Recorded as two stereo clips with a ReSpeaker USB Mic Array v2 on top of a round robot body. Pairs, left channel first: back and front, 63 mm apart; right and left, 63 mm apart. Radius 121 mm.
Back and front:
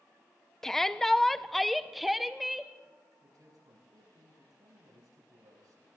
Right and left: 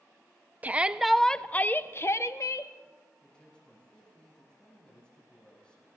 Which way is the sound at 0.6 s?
105° left.